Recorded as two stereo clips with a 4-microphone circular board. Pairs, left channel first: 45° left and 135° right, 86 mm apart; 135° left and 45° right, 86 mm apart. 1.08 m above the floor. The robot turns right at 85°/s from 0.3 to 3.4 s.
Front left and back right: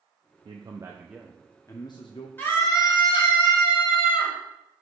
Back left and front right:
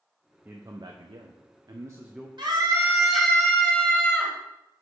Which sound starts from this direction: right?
A man speaking, at 0.5 s.